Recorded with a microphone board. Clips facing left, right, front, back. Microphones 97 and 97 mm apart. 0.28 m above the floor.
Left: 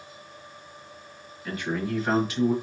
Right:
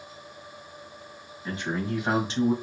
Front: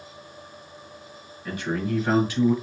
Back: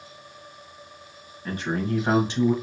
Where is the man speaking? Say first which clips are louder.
Left 1 dB, even; 150° right, 1.5 m; by 2.5 s 125° right, 1.3 m.